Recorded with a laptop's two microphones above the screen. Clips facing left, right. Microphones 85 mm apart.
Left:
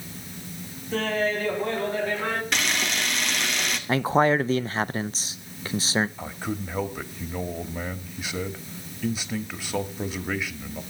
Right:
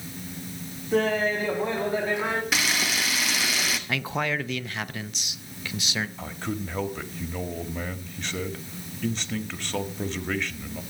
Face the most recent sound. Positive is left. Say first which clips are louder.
# even
turn(degrees=10)  # may be behind; listen again after turning